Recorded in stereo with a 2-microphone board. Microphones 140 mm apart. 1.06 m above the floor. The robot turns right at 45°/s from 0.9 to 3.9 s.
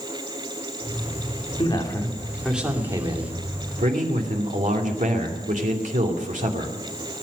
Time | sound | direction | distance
1.6 | a man speaking | 140° left | 2.5 m